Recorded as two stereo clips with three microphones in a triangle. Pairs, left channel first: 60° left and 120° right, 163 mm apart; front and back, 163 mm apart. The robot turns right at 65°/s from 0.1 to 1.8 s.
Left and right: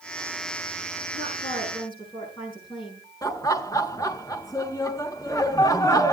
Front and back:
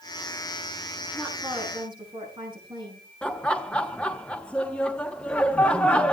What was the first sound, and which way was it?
A woman speaking, 75° left.